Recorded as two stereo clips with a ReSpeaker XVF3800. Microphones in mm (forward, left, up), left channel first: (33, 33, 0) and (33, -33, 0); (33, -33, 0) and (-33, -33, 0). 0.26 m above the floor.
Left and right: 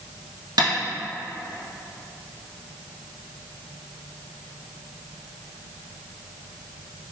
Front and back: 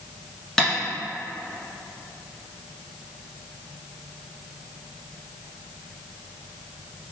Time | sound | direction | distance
0.6 | tapping | 85° right | 1.0 m